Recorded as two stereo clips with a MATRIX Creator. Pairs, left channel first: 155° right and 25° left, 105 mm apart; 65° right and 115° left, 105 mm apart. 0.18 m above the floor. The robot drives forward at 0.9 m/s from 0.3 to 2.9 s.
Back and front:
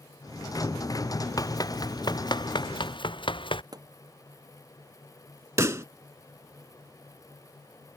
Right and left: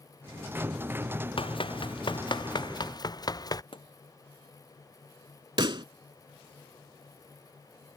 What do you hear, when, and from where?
1.4 s running footsteps: 100° right; by 3.6 s 120° right
3.7 s a pop: 30° right
5.6 s a pop: 80° left